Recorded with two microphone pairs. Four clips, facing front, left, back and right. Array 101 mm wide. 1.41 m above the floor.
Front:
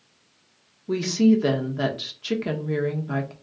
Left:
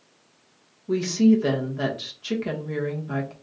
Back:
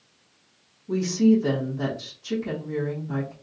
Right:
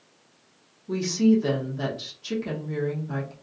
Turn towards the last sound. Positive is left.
turn(degrees=25)